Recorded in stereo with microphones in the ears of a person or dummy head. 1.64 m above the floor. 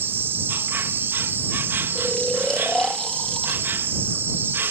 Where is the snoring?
5° left (ahead or behind).